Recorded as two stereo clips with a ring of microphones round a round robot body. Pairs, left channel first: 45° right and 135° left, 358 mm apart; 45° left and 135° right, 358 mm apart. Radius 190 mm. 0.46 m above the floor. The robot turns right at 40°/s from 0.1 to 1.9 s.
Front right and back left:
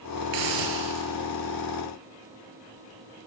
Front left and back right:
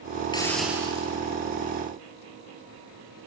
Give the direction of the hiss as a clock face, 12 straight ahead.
8 o'clock.